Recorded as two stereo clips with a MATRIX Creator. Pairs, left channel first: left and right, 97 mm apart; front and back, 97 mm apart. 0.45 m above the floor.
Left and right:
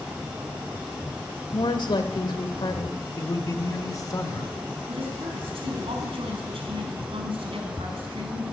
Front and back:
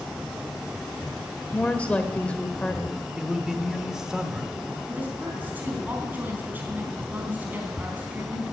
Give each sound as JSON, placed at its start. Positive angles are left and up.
{"t": 1.5, "sound": "a woman speaking", "azimuth_deg": 75, "distance_m": 1.8}
{"t": 3.2, "sound": "a man speaking", "azimuth_deg": 100, "distance_m": 1.7}
{"t": 4.8, "sound": "a woman speaking", "azimuth_deg": -110, "distance_m": 4.0}